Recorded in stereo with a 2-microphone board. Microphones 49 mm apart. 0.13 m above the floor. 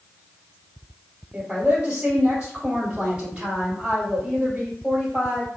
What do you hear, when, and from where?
1.3 s a woman speaking: 35° right (ahead or behind), 1.5 m